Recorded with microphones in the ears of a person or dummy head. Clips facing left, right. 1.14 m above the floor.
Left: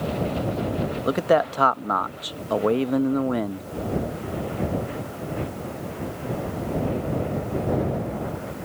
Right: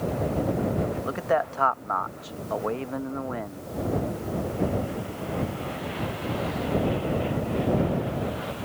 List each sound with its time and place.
1.1 s a man speaking: 45° left (ahead or behind)